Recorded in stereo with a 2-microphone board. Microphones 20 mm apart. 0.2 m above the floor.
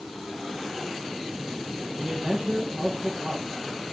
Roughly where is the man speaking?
Right.